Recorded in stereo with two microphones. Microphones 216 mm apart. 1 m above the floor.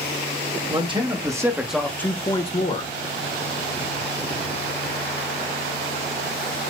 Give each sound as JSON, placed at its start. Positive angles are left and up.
{"t": 0.7, "sound": "a man speaking", "side_deg": -25, "distance_m": 1.5}